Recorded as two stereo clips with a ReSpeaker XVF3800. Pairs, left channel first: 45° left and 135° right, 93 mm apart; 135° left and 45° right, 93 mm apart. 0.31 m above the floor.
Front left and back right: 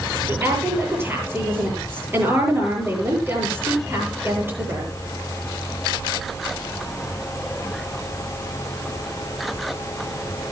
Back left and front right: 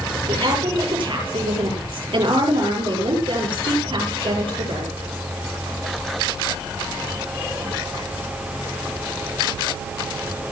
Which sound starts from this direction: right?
A woman speaking, at 0.3 s.